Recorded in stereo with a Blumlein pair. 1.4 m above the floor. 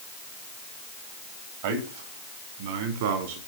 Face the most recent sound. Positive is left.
turn(degrees=-55)